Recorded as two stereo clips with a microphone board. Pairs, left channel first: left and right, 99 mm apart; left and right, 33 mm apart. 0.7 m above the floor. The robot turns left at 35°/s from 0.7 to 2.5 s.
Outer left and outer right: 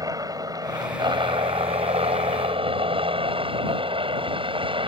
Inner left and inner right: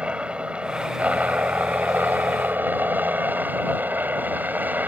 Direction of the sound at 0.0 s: 35° right (ahead or behind).